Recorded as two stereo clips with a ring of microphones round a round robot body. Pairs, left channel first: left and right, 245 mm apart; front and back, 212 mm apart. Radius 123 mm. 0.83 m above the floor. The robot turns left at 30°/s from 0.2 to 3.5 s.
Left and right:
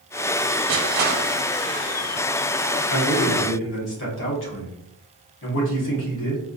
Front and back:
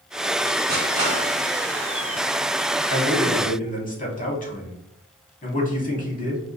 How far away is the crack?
No crack in this recording.